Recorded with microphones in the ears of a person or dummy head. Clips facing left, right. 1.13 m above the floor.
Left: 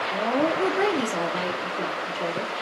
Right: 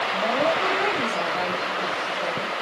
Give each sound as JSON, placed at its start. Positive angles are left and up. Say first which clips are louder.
{"t": 0.1, "sound": "a woman speaking", "louder": "left 1 dB", "side_deg": 55, "distance_m": 3.0}